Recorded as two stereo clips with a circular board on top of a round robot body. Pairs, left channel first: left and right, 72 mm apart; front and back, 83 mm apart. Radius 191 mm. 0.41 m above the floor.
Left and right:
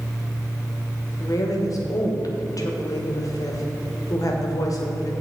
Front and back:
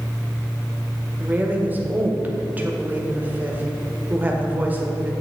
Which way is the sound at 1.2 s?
115° left.